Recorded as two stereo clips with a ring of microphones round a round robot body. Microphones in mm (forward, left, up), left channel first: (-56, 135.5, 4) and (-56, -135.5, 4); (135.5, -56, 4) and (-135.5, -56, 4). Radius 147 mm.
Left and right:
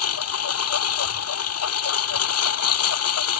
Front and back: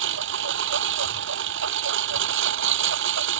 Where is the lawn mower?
125° left.